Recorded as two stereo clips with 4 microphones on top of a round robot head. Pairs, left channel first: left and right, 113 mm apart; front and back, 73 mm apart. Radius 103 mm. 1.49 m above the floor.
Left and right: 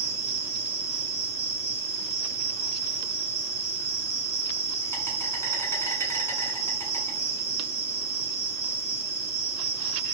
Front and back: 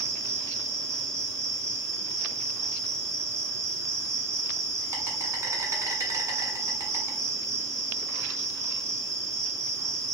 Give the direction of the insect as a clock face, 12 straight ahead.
7 o'clock.